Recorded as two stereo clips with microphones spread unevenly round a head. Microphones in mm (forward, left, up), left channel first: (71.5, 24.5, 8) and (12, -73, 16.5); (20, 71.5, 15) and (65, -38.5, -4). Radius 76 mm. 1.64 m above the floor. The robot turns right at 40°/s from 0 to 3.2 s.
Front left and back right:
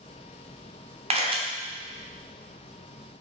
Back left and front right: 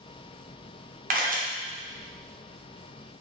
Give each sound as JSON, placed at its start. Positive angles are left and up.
{"t": 1.1, "sound": "a camera shutter", "azimuth_deg": -85, "distance_m": 0.8}